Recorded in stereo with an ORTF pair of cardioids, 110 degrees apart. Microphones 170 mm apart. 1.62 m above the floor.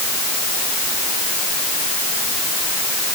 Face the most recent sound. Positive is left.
No sound to turn to.